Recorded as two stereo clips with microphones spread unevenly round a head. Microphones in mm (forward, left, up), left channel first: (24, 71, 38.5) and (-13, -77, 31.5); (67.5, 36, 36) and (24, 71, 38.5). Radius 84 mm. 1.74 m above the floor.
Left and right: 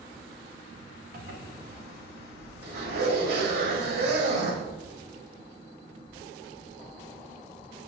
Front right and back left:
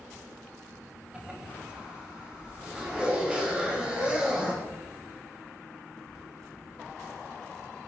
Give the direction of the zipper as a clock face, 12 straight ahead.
4 o'clock.